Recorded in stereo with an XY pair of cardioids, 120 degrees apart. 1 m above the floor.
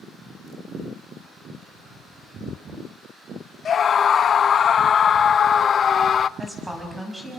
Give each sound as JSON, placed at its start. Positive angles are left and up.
{"t": 3.6, "sound": "a scream", "azimuth_deg": 40, "distance_m": 0.5}
{"t": 6.4, "sound": "a woman speaking", "azimuth_deg": -10, "distance_m": 7.0}